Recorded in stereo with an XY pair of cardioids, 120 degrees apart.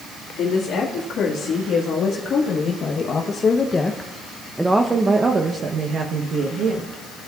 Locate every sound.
0.4 s a woman speaking: 70° left, 2 m; by 7.0 s 65° right, 1.4 m